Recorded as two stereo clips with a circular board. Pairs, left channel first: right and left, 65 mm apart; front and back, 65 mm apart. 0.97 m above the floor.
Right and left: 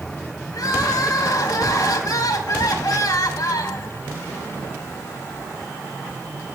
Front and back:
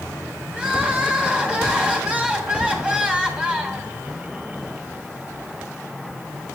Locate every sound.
0.5 s crying: 110° right, 1.1 m